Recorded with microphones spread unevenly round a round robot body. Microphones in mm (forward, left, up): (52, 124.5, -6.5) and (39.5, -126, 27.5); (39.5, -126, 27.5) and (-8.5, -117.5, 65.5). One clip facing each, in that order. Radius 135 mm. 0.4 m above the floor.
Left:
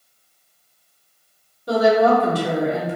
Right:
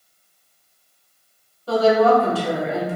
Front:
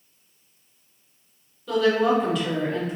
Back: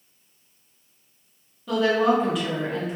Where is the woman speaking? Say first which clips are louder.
Even, even; 30° left, 1.0 m.